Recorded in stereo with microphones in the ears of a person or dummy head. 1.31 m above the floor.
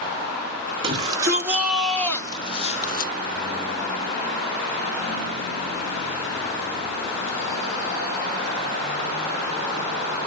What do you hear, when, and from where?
0.8 s a shout: 30° right (ahead or behind), 1.2 m; by 3.1 s 45° left (ahead or behind), 1.0 m